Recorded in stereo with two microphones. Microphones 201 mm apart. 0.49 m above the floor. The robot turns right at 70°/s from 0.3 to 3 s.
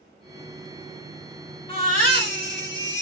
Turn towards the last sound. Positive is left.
turn(degrees=120)